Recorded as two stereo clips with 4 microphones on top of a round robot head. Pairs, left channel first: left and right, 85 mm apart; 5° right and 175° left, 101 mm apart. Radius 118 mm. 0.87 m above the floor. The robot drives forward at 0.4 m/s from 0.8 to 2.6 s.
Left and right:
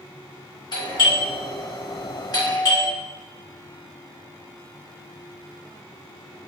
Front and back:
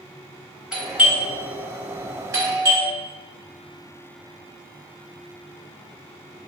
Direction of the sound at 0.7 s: 95° left.